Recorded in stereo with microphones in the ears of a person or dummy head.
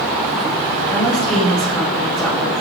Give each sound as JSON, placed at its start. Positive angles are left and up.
{"t": 0.9, "sound": "a woman speaking", "side_deg": 10, "distance_m": 1.7}